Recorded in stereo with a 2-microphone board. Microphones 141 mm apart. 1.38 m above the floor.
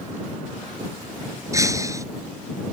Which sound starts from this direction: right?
Breaking glass, at 1.5 s.